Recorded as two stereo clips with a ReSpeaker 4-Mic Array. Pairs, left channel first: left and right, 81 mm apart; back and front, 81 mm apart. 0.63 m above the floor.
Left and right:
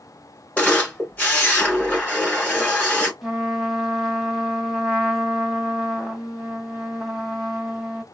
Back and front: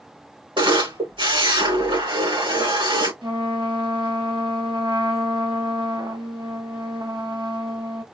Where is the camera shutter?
15° left, 4 m.